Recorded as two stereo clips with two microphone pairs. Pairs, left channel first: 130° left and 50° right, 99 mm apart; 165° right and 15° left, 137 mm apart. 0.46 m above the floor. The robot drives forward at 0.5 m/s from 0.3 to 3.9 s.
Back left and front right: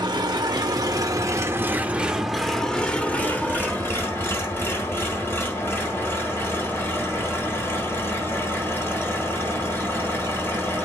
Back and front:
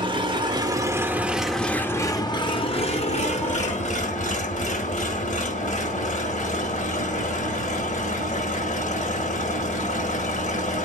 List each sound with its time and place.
0.0 s an engine running: 25° right, 1.0 m; by 10.9 s 165° right, 1.3 m